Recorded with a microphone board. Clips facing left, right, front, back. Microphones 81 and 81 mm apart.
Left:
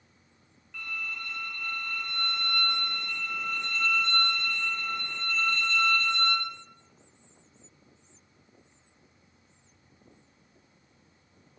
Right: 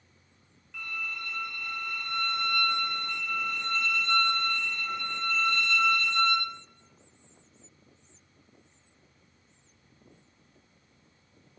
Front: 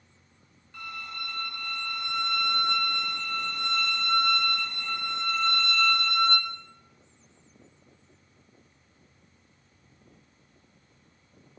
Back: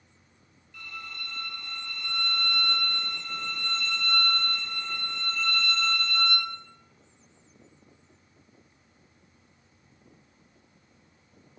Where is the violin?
Straight ahead, 0.8 m.